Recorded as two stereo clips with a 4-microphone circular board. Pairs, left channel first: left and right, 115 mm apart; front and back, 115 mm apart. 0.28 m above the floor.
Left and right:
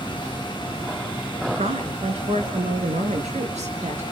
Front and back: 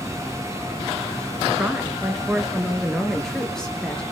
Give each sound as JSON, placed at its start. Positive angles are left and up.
{"t": 1.6, "sound": "a woman speaking", "azimuth_deg": -105, "distance_m": 3.5}